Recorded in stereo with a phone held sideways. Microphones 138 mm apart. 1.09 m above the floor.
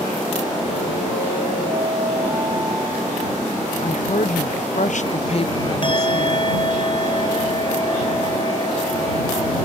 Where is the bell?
35° left (ahead or behind).